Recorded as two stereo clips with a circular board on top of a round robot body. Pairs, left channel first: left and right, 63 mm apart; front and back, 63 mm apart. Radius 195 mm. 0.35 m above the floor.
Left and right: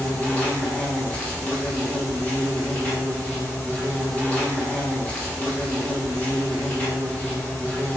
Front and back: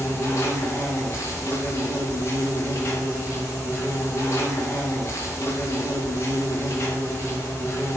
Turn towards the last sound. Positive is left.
turn(degrees=25)